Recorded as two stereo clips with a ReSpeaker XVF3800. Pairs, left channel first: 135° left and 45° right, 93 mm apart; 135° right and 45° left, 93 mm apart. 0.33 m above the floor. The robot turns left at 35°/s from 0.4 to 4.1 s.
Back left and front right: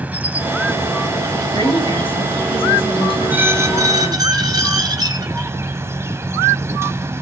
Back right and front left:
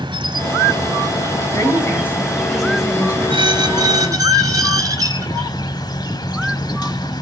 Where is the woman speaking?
175° left, 5 m; by 4.3 s 85° left, 5 m.